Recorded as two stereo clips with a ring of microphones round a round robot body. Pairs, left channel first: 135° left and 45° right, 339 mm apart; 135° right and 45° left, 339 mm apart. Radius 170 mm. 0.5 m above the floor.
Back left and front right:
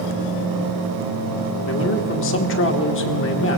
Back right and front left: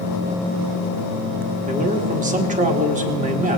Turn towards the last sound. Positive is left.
turn(degrees=105)